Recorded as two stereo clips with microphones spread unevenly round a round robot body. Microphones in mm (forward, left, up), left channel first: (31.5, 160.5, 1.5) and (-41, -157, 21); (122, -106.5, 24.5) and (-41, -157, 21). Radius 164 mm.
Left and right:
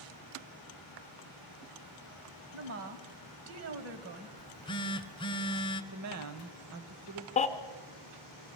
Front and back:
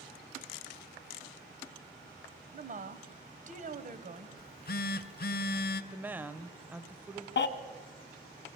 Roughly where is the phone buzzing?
Ahead.